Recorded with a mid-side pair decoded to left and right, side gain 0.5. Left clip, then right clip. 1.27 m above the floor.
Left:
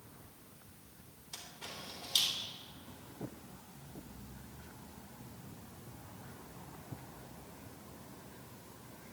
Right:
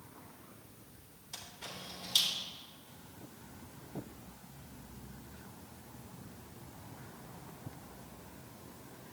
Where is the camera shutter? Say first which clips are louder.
Right 1 dB; 15° left, 4 m.